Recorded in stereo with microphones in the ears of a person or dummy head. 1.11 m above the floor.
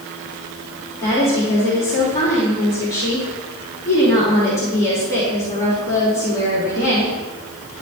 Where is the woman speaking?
25° left (ahead or behind), 3 m.